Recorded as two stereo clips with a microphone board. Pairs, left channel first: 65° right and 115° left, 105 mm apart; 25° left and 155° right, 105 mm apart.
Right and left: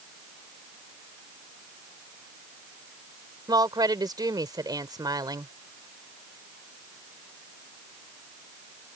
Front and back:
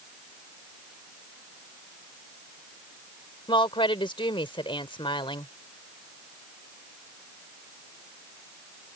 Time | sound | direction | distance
3.5 | a woman speaking | 60° left | ?